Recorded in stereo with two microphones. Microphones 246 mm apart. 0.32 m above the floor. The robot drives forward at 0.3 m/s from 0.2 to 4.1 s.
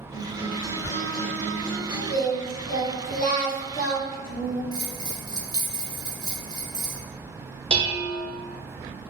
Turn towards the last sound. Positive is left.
turn(degrees=-20)  # may be behind; listen again after turning